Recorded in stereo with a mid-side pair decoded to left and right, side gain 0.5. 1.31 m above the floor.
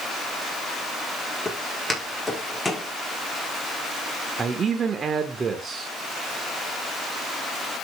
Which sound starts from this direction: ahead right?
A man speaking, at 4.4 s.